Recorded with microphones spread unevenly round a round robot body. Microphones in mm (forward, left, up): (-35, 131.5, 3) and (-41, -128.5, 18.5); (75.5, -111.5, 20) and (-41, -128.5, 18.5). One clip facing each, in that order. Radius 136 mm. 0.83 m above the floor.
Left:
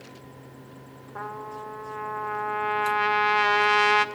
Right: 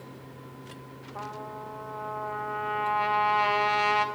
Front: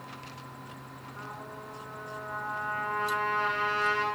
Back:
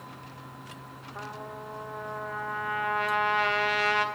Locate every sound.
1.1 s a trumpet: 150° left, 0.7 m